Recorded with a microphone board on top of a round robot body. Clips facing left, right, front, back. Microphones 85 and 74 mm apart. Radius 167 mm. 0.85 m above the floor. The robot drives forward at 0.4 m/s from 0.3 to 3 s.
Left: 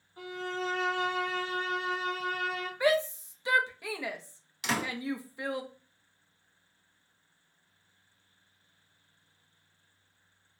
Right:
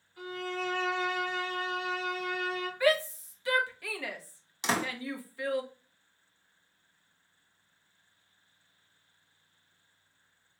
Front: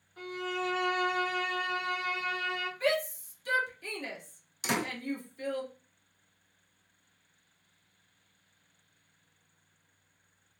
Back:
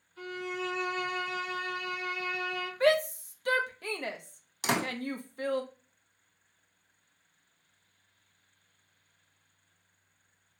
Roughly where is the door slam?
Behind right.